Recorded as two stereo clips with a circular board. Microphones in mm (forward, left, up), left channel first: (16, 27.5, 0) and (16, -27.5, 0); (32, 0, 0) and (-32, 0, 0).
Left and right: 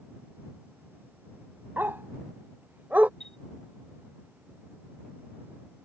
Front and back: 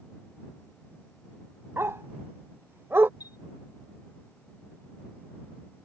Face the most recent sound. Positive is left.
turn(degrees=10)